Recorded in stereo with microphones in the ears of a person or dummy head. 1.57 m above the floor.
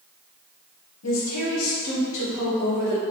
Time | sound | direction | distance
1.0 | a woman speaking | 80° left | 1.2 m